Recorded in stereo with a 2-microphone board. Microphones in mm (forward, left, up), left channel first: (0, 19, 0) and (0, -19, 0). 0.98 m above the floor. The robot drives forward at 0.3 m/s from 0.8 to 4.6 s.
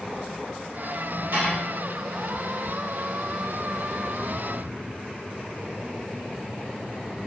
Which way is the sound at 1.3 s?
85° right.